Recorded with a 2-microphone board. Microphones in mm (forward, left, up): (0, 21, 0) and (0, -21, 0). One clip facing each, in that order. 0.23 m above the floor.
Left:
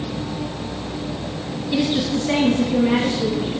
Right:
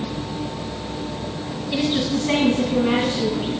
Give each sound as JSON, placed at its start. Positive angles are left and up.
{"t": 1.7, "sound": "a woman speaking", "side_deg": -10, "distance_m": 1.3}